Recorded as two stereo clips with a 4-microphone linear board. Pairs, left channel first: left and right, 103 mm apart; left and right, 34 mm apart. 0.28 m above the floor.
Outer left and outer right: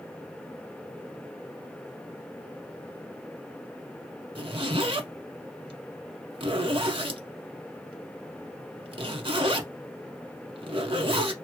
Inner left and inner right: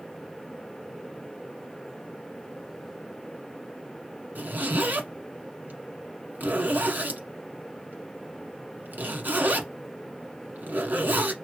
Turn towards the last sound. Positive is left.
turn(degrees=-65)  # may be behind; listen again after turning